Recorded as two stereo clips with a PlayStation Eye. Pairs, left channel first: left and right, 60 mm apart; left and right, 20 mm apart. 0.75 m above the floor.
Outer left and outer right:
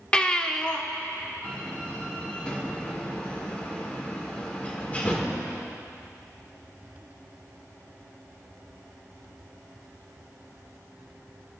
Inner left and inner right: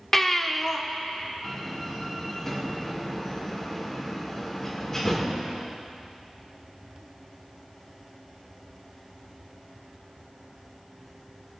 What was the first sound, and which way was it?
A baby crying, 15° left (ahead or behind).